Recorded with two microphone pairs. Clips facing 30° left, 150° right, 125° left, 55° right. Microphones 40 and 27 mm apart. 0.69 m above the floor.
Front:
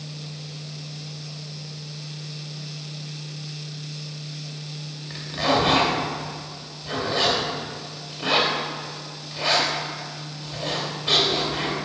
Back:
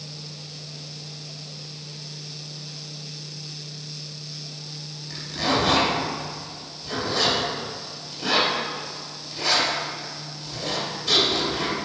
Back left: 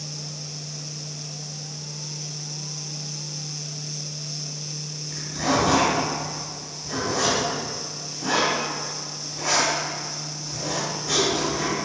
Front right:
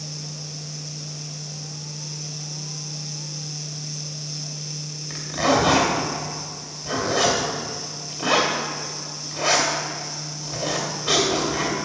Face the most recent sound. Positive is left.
turn(degrees=-35)